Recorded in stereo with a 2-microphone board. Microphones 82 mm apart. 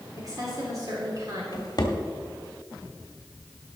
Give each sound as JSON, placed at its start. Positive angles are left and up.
{"t": 0.2, "sound": "a woman speaking", "side_deg": -45, "distance_m": 2.5}
{"t": 1.5, "sound": "a drawer", "side_deg": 50, "distance_m": 1.3}